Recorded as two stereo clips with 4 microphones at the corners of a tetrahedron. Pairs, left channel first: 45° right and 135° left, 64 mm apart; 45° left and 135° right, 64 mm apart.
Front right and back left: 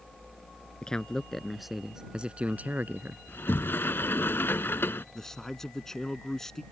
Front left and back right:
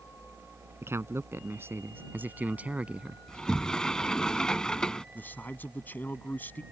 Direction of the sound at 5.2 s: 30° left.